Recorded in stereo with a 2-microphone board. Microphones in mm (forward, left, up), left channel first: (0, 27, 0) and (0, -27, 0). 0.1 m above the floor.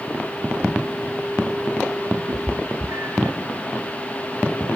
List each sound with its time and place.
2.3 s a cat meowing: 85° right, 1.4 m; by 3.4 s 60° right (ahead or behind), 1.9 m